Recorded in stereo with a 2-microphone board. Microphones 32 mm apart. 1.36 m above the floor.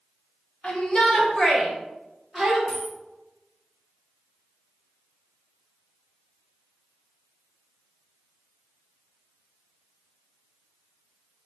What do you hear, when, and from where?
0.6 s a shout: 35° left (ahead or behind), 1.2 m; by 2.6 s 10° right (ahead or behind), 1.5 m
2.7 s a dropped coin: 40° left (ahead or behind), 1.3 m